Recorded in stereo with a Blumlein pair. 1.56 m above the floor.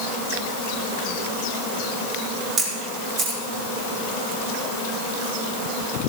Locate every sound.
2.6 s a camera shutter: 25° right, 3 m